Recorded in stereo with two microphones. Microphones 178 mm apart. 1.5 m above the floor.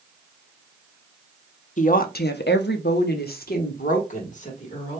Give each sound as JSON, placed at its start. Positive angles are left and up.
{"t": 1.8, "sound": "a woman speaking", "side_deg": 45, "distance_m": 0.6}